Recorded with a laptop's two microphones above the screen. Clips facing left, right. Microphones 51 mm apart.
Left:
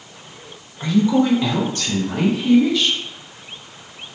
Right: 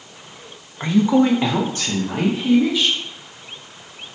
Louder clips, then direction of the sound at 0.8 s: Right 1 dB; 25° right (ahead or behind).